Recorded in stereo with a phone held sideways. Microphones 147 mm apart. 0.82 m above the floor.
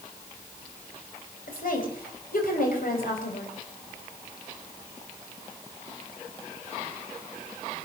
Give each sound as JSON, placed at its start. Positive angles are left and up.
{"t": 1.5, "sound": "a woman speaking", "side_deg": 70, "distance_m": 5.0}